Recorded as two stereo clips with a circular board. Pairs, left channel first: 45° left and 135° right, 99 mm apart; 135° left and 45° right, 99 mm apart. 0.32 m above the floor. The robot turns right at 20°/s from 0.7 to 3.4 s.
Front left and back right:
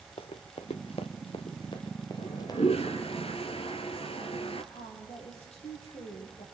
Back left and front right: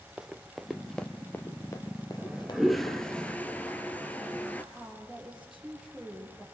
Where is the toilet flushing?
35° left, 2.0 m; by 4.6 s 60° left, 2.0 m.